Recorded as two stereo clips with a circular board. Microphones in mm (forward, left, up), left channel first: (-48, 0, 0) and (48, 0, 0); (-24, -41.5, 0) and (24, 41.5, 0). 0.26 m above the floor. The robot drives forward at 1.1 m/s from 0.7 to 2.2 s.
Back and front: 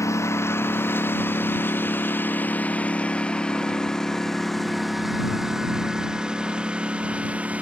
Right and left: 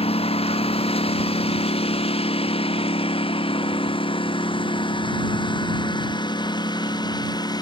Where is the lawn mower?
120° right; by 7.6 s 75° right.